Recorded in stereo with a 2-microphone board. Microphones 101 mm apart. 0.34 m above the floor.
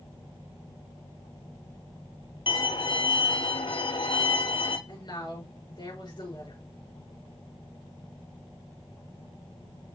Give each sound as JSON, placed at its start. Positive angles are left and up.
{"t": 2.5, "sound": "a violin", "side_deg": 60, "distance_m": 1.0}
{"t": 4.9, "sound": "a woman speaking", "side_deg": 50, "distance_m": 4.5}